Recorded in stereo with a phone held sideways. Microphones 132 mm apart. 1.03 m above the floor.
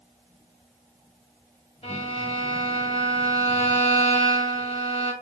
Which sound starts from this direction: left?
A violin, at 1.8 s.